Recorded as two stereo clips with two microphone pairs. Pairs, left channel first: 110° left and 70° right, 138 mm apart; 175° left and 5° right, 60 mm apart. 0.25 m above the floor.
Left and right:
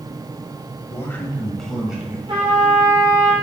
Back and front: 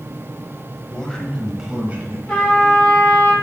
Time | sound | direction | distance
0.9 | a man speaking | 140° left | 1.2 m
2.3 | a trumpet | 115° right | 3.5 m